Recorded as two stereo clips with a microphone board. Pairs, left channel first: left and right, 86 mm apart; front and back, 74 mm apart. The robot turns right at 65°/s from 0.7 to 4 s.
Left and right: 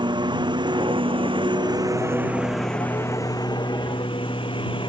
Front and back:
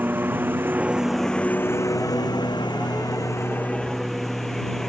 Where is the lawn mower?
115° right; by 4.9 s 85° left.